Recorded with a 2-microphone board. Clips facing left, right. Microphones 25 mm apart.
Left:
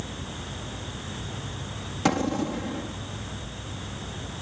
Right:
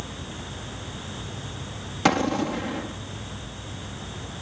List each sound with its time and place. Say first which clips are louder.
2.0 s an explosion: right 3 dB; 30° right (ahead or behind)